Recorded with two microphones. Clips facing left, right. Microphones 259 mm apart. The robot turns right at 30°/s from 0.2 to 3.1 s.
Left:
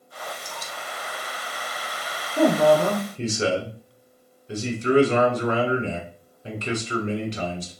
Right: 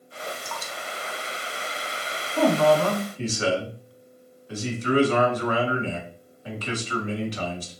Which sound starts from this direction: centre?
Dripping, at 0.4 s.